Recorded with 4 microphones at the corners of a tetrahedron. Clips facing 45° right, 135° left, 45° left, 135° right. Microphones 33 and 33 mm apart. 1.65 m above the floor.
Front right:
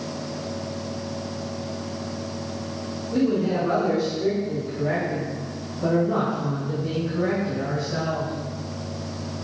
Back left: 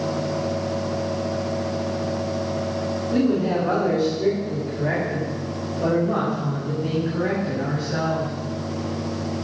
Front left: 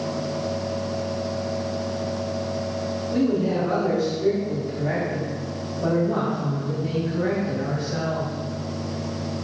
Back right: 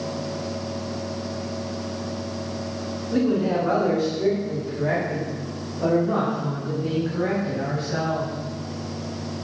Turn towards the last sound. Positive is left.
turn(degrees=-170)